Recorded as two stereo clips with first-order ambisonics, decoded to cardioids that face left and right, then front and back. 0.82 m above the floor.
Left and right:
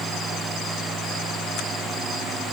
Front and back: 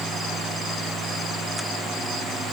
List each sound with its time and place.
Only background noise.